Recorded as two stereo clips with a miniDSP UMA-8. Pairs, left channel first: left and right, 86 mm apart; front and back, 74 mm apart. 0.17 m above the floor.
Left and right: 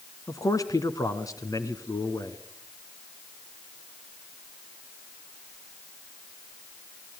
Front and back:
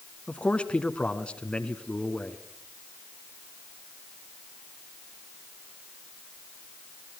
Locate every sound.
0.3 s a man speaking: 70° left, 1.4 m